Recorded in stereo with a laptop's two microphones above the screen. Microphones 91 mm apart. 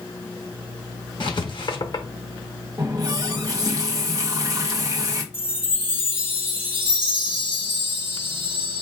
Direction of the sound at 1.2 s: 55° left (ahead or behind).